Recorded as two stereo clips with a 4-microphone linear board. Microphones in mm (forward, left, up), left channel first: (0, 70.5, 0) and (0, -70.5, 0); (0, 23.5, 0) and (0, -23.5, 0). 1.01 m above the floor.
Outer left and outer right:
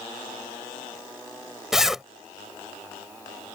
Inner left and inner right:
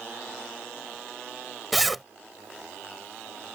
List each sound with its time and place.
1.7 s a zipper: 5° right (ahead or behind)